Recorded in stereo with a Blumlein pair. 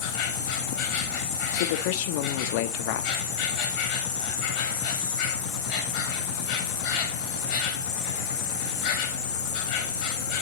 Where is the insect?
45° left, 2.5 m.